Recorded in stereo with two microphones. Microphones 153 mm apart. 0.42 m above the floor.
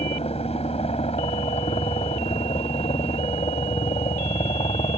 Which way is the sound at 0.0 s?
45° left (ahead or behind).